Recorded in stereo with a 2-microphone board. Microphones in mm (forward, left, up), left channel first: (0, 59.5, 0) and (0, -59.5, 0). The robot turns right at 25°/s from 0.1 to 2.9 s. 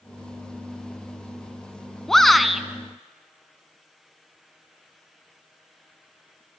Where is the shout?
5° left (ahead or behind), 1.5 m; by 2.6 s 5° right (ahead or behind), 1.5 m.